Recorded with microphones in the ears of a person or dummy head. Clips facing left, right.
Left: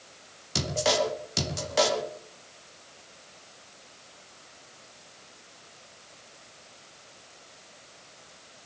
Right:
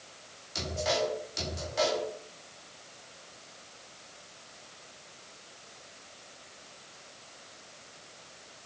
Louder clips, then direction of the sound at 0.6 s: Left 4 dB; 70° left (ahead or behind).